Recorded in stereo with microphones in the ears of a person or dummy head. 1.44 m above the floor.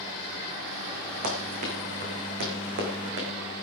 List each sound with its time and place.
1.2 s running footsteps: 40° right (ahead or behind), 4 m; by 3.3 s 55° right (ahead or behind), 4 m